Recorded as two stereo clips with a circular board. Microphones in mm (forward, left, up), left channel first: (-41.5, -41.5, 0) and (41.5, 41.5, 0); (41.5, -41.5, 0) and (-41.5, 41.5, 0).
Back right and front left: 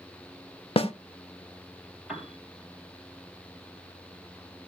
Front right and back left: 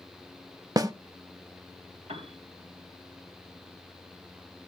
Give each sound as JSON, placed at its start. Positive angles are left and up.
{"t": 0.8, "sound": "a snare drum", "azimuth_deg": -170, "distance_m": 0.6}
{"t": 2.1, "sound": "a piano", "azimuth_deg": 130, "distance_m": 2.5}